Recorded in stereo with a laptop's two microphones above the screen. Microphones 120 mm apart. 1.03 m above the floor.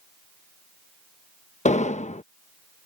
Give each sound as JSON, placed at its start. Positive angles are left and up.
{"t": 1.6, "sound": "an explosion", "side_deg": 80}